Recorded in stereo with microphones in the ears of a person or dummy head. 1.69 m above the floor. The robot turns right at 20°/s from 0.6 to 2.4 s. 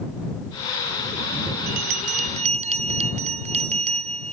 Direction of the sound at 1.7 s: 50° right (ahead or behind).